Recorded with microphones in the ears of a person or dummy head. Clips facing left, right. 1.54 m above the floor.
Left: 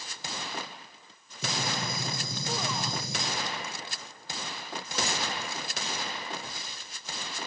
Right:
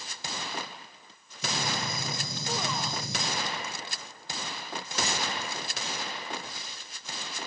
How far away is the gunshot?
About 0.8 m.